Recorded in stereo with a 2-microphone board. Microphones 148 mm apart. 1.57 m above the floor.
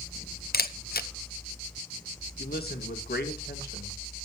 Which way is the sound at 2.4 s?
85° left.